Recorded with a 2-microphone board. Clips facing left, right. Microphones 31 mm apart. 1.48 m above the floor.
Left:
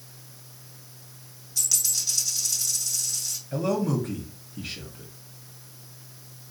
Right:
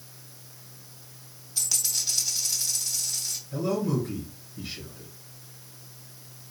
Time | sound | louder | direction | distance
1.6 | a dropped coin | left 1 dB | 20° right (ahead or behind) | 1.3 m
3.5 | a man speaking | left 2 dB | 75° left (ahead or behind) | 1.3 m